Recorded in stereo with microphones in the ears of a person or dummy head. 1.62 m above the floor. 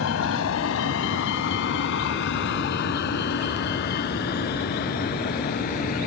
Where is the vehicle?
85° left; by 6.1 s 50° left (ahead or behind).